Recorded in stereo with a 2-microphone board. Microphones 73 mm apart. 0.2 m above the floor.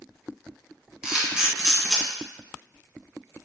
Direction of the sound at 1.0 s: 10° right (ahead or behind).